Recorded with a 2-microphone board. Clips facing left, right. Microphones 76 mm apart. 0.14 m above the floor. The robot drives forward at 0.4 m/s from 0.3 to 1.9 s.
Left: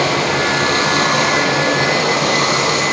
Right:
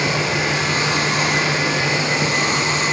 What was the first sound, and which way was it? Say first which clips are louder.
Running water: left 5 dB; 70° left (ahead or behind).